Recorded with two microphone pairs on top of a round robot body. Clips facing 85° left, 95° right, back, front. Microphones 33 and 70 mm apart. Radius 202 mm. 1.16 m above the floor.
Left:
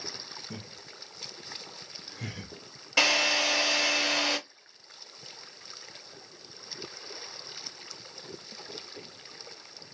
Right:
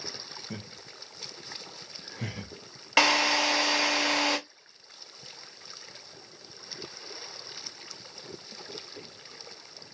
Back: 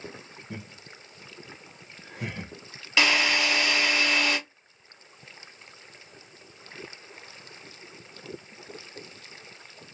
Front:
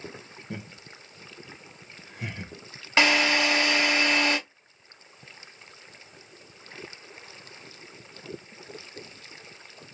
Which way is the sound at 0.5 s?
35° right.